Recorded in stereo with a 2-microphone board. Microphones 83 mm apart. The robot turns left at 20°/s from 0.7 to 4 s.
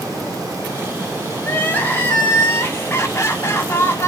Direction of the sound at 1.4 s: 140° left.